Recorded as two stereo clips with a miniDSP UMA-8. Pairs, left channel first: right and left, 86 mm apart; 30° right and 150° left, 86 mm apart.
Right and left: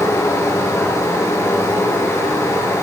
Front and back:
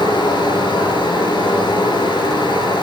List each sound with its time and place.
0.0 s running water: 35° right, 3.5 m